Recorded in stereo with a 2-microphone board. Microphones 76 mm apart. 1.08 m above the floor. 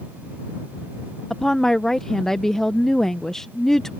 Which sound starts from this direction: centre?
A woman speaking, at 1.3 s.